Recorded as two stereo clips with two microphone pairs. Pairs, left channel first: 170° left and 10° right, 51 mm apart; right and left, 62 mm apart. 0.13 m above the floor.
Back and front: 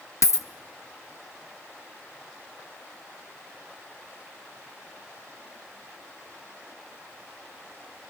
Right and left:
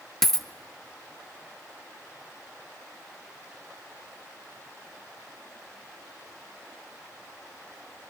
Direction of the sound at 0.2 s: 175° right.